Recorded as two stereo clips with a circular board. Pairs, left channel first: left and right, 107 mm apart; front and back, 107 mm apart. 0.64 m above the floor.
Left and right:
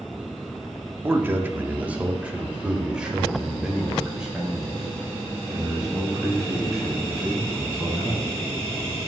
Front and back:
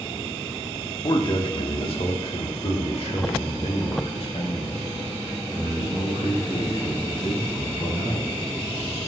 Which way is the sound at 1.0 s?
30° right.